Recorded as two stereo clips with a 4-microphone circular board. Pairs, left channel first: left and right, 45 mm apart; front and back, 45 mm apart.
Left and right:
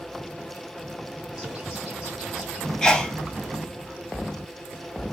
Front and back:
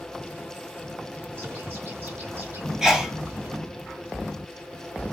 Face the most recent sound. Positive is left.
turn(degrees=130)